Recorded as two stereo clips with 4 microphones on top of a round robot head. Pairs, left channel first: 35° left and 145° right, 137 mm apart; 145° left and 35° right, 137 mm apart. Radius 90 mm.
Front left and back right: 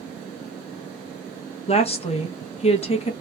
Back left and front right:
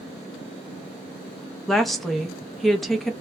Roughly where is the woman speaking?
Ahead left.